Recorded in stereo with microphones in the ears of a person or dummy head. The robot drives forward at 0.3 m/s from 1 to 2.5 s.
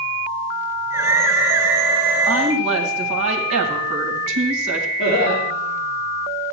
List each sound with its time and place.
2.3 s a woman speaking: 70° right (ahead or behind), 2 m
5.0 s laughter: 50° left (ahead or behind), 4 m